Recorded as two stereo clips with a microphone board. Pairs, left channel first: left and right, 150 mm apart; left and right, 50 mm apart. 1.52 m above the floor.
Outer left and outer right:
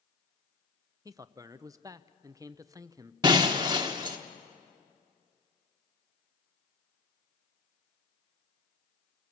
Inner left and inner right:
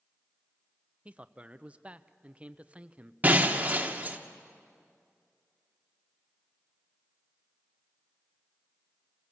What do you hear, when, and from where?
1.1 s a man speaking: 25° right (ahead or behind), 0.6 m
3.2 s breaking glass: 30° right (ahead or behind), 1.1 m